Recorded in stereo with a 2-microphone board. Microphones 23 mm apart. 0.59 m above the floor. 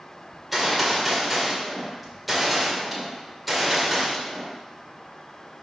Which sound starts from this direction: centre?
A gunshot, at 0.3 s.